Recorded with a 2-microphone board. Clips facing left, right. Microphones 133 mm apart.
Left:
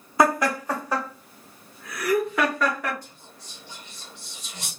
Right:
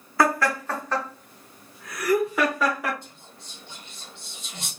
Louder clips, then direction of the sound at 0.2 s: Left 1 dB; 20° left (ahead or behind).